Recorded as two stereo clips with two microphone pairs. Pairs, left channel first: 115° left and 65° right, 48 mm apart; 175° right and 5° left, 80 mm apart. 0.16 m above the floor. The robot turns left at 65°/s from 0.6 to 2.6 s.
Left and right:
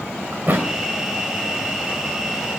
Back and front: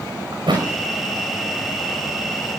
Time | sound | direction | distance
0.3 | a thud | 20° right | 5.5 m